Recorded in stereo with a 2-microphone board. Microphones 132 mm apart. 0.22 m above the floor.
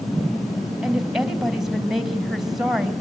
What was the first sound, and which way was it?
A woman speaking, 5° right (ahead or behind).